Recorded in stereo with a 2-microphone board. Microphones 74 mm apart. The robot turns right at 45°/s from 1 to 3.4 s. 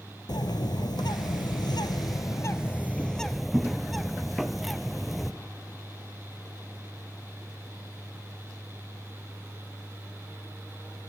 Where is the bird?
75° left, 0.7 m; by 5.3 s straight behind, 0.7 m.